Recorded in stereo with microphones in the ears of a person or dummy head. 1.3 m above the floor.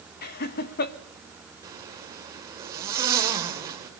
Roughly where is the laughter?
Left.